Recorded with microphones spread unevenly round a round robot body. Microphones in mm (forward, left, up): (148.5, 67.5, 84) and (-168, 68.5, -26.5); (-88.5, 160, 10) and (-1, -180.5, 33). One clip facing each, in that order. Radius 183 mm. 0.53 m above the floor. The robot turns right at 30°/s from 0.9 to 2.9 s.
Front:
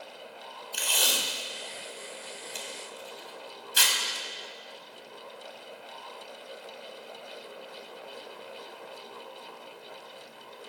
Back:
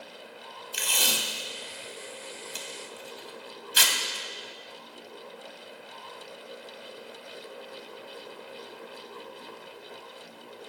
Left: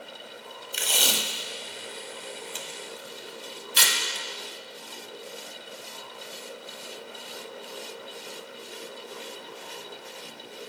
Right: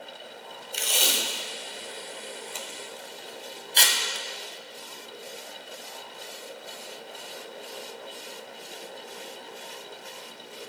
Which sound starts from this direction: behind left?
Tape being pulled, at 0.7 s.